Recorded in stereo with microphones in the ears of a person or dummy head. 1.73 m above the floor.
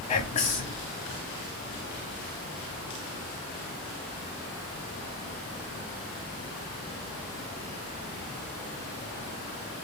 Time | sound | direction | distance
0.1 | whispering | 30° left (ahead or behind) | 0.9 m